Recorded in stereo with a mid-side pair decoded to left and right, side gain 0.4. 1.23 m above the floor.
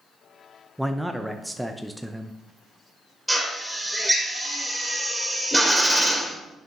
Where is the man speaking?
5° right, 0.6 m.